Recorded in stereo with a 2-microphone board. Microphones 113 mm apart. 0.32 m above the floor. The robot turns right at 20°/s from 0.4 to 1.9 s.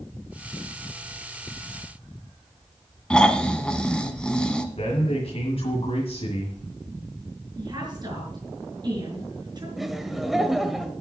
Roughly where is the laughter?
Centre.